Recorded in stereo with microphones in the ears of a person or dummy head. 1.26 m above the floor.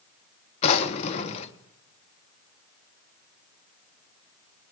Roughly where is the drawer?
Left.